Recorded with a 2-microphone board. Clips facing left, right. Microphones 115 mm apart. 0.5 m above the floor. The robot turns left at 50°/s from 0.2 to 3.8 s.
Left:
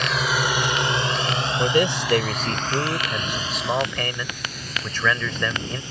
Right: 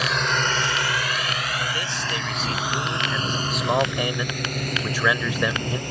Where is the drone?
5° right (ahead or behind); by 5.9 s 55° right (ahead or behind).